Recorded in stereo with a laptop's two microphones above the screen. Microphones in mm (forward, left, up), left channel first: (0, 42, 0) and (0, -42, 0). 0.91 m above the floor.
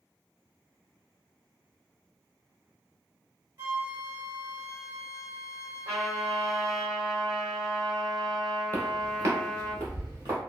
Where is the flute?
30° right (ahead or behind), 0.9 m.